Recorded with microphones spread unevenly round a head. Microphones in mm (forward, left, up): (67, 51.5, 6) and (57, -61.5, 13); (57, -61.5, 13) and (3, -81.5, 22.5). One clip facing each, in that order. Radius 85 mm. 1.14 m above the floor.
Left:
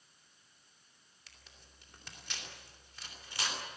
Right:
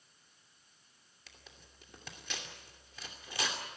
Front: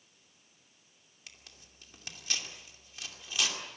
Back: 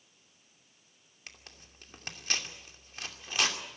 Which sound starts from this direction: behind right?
Tearing paper, at 1.3 s.